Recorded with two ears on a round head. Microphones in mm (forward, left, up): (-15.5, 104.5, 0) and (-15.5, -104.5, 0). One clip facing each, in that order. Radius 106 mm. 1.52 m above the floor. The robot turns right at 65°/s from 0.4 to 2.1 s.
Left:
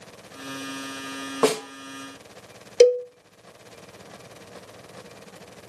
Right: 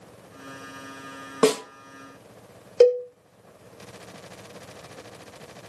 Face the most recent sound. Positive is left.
turn(degrees=25)  # may be behind; listen again after turning